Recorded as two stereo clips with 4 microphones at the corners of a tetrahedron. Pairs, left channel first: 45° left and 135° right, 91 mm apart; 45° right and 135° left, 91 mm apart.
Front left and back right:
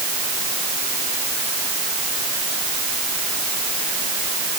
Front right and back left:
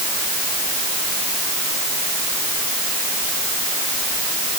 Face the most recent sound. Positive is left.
No sound to turn to.